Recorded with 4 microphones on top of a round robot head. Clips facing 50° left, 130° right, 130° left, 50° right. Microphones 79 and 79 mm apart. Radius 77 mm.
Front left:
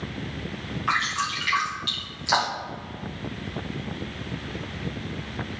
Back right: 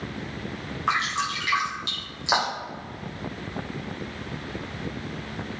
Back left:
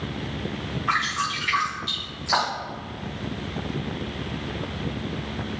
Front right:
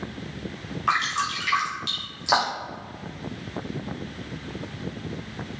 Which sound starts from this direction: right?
Dripping, at 0.9 s.